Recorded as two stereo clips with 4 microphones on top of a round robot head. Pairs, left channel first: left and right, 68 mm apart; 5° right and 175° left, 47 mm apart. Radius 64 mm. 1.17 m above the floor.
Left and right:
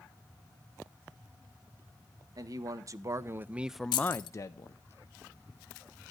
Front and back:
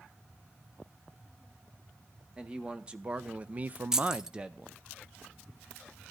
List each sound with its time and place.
2.4 s a man speaking: 115° right, 1.3 m; by 4.8 s 100° left, 0.9 m
3.9 s keys jangling: 100° left, 0.8 m